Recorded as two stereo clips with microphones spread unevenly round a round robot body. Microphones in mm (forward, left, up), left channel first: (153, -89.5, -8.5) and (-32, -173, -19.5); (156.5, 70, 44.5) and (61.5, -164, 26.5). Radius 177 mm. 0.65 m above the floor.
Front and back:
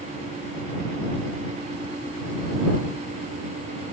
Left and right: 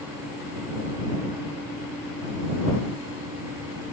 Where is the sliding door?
No sliding door in this recording.